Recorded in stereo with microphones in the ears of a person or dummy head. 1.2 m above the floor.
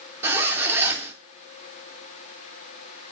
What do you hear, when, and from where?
0.2 s a zipper: 15° right (ahead or behind), 3 m